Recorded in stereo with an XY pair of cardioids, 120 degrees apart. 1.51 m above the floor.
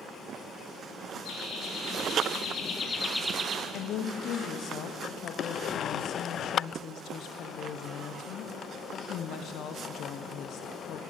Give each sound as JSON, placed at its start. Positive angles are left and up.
{"t": 1.2, "sound": "laughter", "azimuth_deg": 70, "distance_m": 2.5}
{"t": 3.7, "sound": "a woman speaking", "azimuth_deg": 65, "distance_m": 0.6}